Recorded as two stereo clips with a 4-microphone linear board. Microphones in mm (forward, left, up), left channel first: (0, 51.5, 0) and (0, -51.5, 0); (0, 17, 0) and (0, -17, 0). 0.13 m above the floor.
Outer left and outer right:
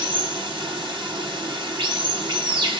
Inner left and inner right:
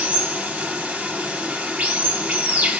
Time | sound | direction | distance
0.0 | running water | 50° right (ahead or behind) | 2 m